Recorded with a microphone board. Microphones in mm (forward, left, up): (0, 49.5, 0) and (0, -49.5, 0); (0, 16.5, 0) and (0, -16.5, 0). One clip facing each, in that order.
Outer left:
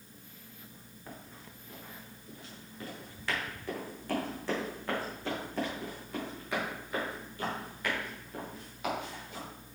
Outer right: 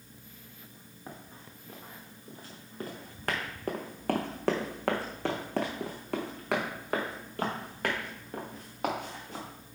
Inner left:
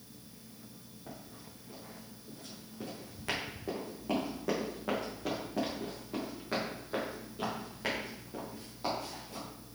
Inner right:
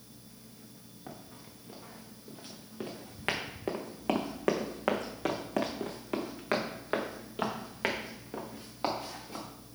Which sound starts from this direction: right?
Running footsteps, at 1.1 s.